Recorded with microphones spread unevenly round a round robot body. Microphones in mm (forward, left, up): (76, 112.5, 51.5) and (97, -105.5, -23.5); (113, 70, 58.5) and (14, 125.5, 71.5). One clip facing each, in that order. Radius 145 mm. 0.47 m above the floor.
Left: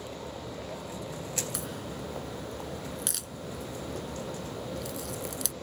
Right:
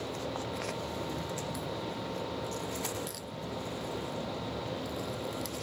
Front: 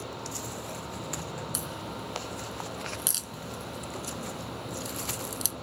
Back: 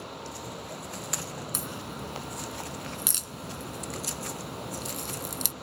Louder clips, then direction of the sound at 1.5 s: Right 1 dB, even; 120° left.